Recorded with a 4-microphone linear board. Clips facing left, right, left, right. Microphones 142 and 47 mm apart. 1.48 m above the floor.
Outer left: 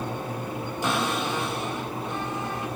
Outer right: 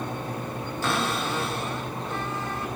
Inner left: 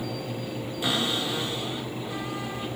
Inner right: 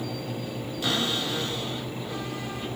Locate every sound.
0.8 s a cupboard door: 15° left (ahead or behind), 3 m